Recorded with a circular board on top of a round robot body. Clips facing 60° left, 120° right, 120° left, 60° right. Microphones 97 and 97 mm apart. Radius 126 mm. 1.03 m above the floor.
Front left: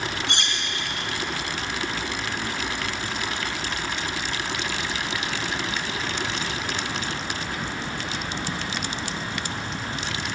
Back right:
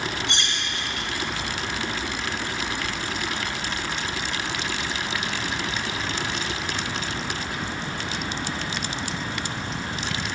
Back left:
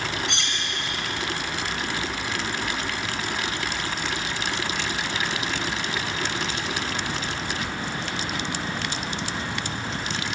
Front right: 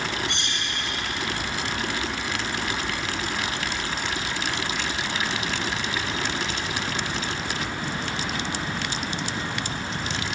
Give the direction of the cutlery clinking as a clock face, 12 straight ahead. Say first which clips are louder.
Even, even; 9 o'clock.